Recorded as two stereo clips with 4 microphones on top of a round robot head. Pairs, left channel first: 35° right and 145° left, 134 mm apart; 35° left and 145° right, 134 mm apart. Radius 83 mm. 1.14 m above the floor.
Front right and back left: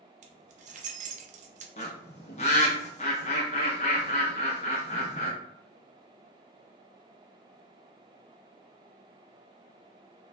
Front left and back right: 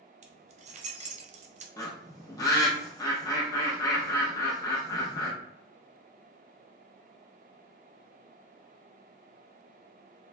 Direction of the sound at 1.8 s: 20° right.